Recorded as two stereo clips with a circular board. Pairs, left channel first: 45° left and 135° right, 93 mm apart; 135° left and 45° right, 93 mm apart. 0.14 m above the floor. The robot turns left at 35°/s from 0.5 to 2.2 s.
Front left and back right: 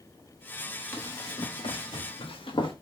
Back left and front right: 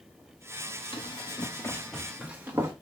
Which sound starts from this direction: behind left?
Running footsteps, at 0.9 s.